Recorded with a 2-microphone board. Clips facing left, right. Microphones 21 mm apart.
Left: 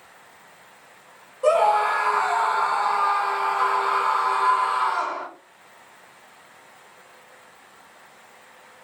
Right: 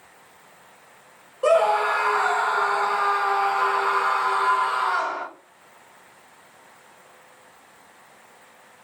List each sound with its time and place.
1.4 s a scream: 50° right (ahead or behind), 2 m